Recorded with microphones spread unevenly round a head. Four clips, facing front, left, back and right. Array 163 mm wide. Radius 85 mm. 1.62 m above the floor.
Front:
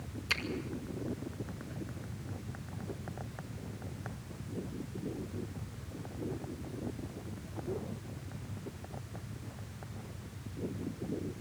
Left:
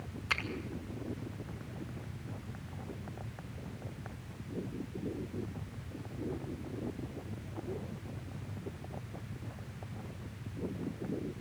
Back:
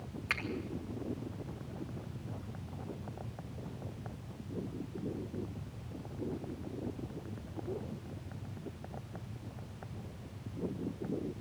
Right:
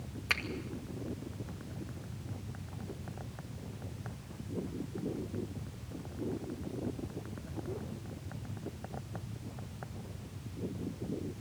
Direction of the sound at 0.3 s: 110° right.